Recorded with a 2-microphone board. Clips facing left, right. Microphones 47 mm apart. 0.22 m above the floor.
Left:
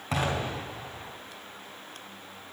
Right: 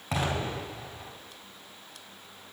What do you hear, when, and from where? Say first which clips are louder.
0.1 s an explosion: left 1 dB; 5° right (ahead or behind), 2.5 m